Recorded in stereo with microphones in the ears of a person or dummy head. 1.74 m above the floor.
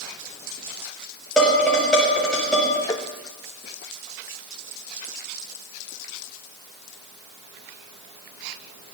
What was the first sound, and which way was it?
Dishes clattering, centre (ahead or behind).